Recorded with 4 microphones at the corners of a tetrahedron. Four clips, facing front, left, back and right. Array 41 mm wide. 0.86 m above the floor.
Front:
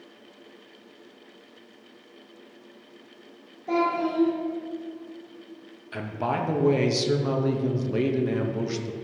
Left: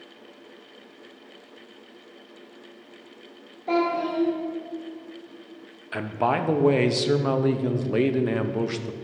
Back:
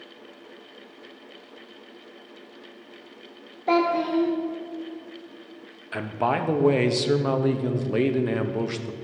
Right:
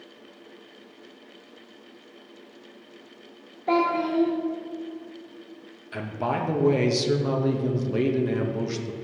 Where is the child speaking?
165° right, 0.9 m.